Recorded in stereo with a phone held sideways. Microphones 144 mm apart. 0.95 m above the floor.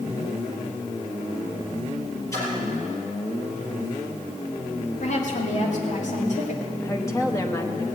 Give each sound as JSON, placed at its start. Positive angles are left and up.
{"t": 2.3, "sound": "a splash", "side_deg": 20, "distance_m": 5.0}
{"t": 5.0, "sound": "a woman speaking", "side_deg": 60, "distance_m": 2.5}
{"t": 6.8, "sound": "a woman speaking", "side_deg": 20, "distance_m": 1.1}